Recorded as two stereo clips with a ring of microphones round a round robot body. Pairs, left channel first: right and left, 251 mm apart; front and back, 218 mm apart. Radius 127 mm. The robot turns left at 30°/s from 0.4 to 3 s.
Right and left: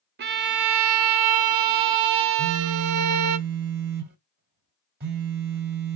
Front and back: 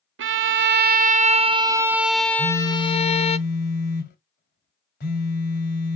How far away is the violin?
About 0.5 m.